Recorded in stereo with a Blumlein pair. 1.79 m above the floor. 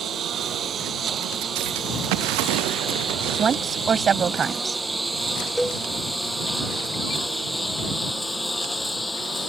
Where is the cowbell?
Straight ahead.